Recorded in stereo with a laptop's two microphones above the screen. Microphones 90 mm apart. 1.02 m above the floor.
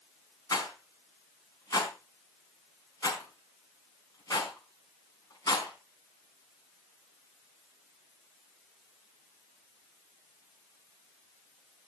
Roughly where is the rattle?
Left.